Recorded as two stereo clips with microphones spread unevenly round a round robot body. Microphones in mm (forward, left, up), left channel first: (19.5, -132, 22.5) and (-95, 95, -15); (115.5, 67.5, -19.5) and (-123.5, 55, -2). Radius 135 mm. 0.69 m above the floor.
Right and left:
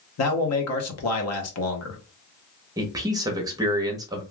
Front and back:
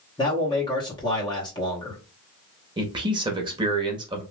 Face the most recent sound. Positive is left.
turn(degrees=135)